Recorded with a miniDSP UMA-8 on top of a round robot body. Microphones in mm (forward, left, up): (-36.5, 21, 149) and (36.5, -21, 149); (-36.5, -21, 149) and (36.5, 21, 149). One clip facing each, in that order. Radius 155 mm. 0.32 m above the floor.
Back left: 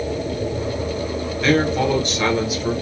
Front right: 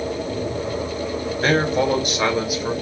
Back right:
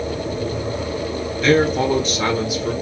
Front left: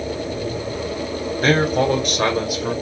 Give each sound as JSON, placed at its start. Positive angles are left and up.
{"t": 1.4, "sound": "a man speaking", "azimuth_deg": 15, "distance_m": 1.1}